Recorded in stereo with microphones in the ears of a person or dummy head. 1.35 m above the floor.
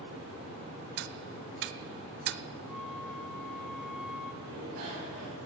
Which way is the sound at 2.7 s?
Centre (ahead or behind).